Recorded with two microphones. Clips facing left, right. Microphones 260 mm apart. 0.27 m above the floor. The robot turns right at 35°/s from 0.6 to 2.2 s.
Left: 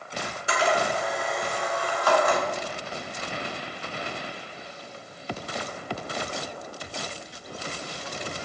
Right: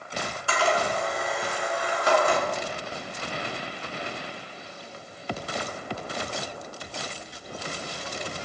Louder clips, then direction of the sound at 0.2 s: Left 1 dB; 20° left (ahead or behind).